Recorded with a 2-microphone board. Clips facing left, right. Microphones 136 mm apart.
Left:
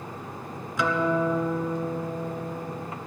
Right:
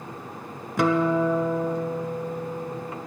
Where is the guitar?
55° right (ahead or behind), 0.9 m.